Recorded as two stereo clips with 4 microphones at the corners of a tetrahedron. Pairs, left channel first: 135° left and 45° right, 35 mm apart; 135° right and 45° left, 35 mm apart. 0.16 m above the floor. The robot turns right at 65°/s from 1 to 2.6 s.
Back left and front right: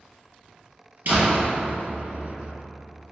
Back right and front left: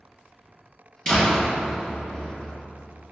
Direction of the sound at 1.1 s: 70° right.